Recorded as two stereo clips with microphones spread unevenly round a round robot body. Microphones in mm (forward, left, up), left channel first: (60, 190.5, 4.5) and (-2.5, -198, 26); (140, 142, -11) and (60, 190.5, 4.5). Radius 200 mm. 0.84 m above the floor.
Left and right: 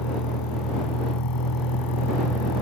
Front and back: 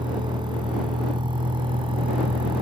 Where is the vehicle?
120° left; by 2.6 s 130° left.